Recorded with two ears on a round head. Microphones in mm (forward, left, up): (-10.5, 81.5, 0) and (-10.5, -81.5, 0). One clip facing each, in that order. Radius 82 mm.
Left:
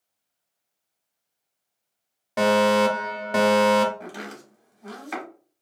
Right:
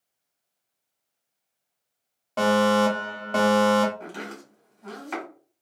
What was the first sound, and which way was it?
A fire alarm, 15° left (ahead or behind).